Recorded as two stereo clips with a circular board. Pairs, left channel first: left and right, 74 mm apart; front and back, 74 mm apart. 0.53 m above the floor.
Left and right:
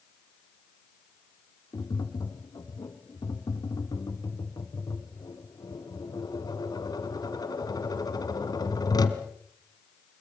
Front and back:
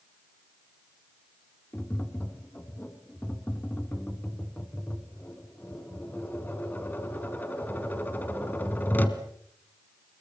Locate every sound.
1.7 s tapping: 65° left, 1.7 m